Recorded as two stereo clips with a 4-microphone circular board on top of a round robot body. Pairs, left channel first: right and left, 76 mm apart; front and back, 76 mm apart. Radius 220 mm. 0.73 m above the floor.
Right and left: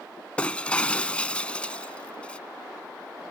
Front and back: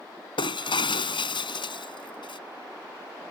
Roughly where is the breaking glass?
Ahead.